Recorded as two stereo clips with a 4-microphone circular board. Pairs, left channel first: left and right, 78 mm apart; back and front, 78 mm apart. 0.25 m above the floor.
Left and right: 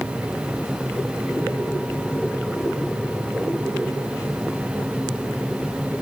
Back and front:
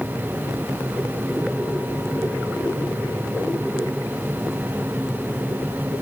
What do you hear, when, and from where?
Only background noise.